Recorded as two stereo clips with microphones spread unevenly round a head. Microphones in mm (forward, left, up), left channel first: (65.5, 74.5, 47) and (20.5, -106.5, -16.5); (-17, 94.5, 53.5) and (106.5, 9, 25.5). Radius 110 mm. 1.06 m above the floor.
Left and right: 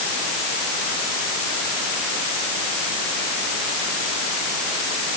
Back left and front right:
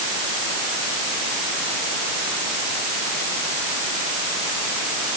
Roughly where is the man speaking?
I don't hear a man speaking.